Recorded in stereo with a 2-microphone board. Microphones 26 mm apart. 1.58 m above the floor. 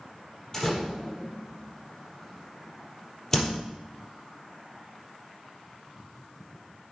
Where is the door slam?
20° left (ahead or behind), 4 m.